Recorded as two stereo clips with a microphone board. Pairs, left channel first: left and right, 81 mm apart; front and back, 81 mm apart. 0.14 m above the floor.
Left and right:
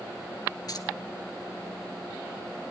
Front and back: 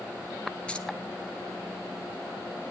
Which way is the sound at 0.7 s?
75° left.